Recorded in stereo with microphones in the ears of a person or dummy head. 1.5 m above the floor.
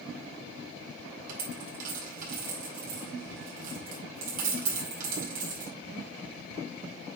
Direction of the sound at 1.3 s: 50° right (ahead or behind).